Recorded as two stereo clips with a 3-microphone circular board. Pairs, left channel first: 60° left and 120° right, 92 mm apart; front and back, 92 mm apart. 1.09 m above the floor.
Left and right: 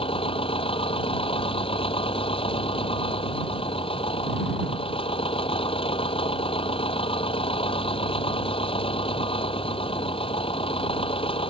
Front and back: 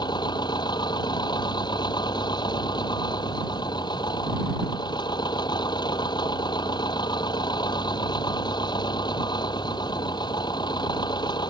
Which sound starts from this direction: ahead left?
An engine running, at 0.0 s.